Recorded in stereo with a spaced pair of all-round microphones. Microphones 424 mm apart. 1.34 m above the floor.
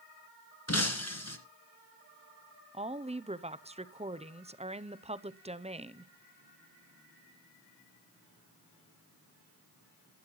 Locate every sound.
0.7 s breaking glass: 35° left (ahead or behind), 1.8 m
2.7 s a woman speaking: 15° right (ahead or behind), 0.6 m